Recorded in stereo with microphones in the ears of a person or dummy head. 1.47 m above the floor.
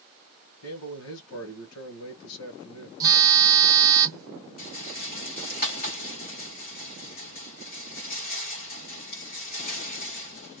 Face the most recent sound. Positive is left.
turn(degrees=45)  # may be behind; listen again after turning